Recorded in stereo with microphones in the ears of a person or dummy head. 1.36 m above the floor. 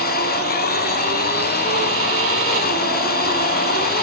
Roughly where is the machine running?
Left.